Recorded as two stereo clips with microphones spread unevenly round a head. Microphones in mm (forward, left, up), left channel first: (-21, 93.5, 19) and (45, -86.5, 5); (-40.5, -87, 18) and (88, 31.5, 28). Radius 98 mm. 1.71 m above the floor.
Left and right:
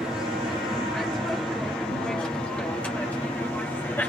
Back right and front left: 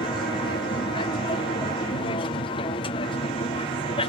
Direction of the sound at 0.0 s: 150° right.